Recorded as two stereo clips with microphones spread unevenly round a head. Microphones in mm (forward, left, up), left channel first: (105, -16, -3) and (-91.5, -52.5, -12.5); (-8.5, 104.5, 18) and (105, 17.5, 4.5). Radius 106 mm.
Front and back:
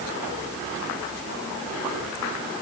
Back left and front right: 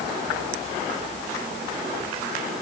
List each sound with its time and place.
Only background noise.